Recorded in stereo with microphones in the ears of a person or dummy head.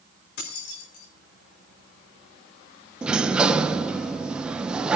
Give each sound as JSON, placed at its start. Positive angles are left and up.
{"t": 0.4, "sound": "keys jangling", "side_deg": 70, "distance_m": 4.0}
{"t": 3.0, "sound": "a sliding door", "side_deg": -5, "distance_m": 0.7}